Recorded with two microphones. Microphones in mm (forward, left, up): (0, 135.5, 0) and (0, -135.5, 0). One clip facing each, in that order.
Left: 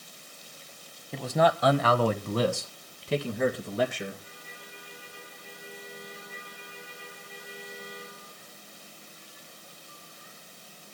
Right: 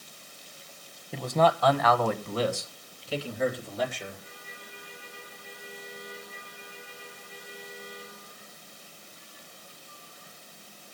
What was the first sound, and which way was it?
A man speaking, 5° right (ahead or behind).